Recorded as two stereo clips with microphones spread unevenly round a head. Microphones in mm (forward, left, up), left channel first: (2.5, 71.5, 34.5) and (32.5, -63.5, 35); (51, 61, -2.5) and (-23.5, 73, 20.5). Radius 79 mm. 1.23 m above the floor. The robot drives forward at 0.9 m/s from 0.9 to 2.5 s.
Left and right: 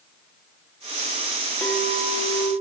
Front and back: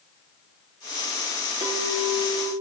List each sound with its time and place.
1.6 s a clink: 175° right, 1.1 m